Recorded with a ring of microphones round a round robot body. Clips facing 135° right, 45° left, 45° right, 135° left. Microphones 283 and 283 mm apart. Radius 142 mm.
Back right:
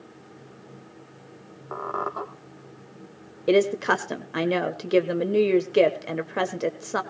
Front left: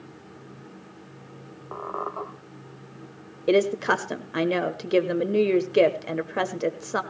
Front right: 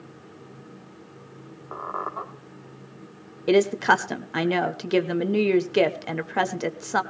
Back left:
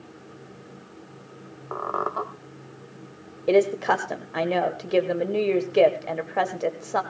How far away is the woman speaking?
About 1.1 m.